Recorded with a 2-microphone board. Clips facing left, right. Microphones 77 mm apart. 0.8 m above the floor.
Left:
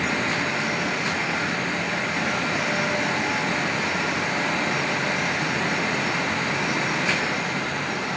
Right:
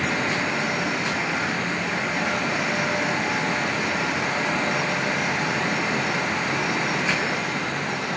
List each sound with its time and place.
Only background noise.